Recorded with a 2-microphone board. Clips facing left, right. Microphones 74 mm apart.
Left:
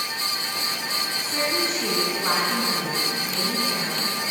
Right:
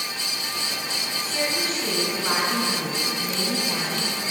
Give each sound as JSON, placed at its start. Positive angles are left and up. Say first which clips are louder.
{"t": 1.2, "sound": "a woman speaking", "louder": "left 1 dB", "side_deg": 30, "distance_m": 5.5}